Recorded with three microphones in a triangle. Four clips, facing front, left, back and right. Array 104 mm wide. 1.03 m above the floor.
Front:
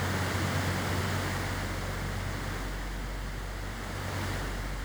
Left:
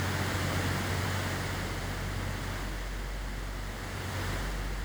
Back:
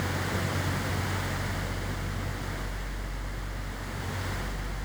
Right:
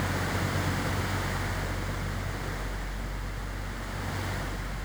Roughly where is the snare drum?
No snare drum in this recording.